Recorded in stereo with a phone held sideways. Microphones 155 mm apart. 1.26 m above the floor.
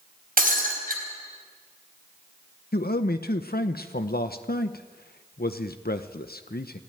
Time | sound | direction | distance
0.4 | breaking glass | 70° right (ahead or behind) | 4 m
2.7 | a man speaking | 80° left | 0.8 m